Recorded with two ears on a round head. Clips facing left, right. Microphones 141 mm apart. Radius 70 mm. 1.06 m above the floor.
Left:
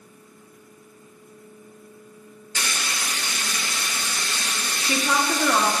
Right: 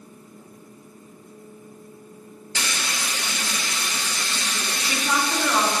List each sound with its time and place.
2.5 s frying: 60° right (ahead or behind), 1.1 m
4.8 s a woman speaking: 75° left (ahead or behind), 1.5 m